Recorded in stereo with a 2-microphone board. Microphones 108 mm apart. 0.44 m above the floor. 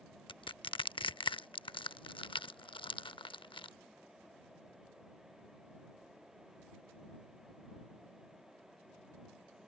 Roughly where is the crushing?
Left.